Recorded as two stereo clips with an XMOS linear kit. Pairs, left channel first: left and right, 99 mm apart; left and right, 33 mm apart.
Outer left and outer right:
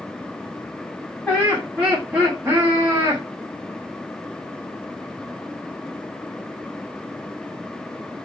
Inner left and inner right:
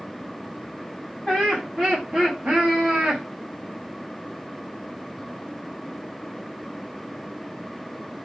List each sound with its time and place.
1.3 s laughter: 15° left (ahead or behind), 1.1 m; by 3.2 s 40° right (ahead or behind), 1.3 m